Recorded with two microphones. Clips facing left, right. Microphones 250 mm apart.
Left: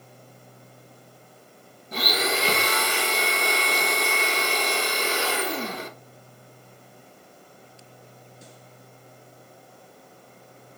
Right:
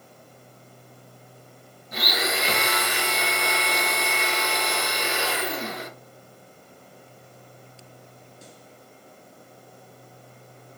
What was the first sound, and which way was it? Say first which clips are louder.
A blender: left 2 dB; 35° left (ahead or behind).